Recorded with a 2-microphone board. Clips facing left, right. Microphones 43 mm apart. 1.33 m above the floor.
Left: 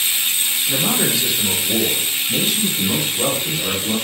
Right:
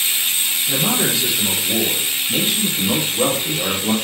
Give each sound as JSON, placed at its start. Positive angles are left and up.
{"t": 0.7, "sound": "a man speaking", "side_deg": 0, "distance_m": 2.5}